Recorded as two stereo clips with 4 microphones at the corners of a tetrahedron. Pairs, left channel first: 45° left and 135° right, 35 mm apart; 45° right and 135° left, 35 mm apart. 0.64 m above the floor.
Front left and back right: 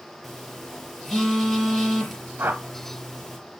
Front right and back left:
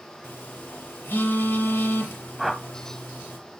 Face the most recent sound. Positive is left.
turn(degrees=-140)